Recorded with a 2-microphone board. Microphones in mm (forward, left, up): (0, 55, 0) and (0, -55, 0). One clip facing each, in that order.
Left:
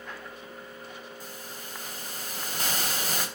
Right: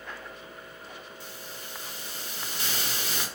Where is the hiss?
45° left (ahead or behind), 4 m.